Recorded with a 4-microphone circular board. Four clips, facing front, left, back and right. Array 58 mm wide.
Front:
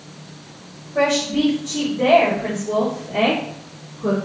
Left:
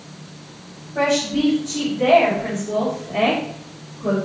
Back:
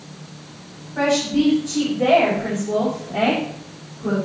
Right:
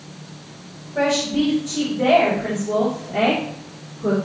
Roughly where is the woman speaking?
Ahead.